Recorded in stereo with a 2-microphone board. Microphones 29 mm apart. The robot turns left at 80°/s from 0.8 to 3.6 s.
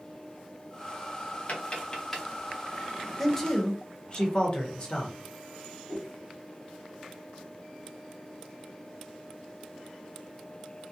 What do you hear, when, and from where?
1.5 s tapping: 50° left (ahead or behind), 0.7 m; by 2.2 s 5° left (ahead or behind), 0.7 m
3.2 s a man speaking: straight behind, 0.9 m; by 5.2 s 150° left, 0.9 m
5.9 s a whoosh: 30° left (ahead or behind), 1.6 m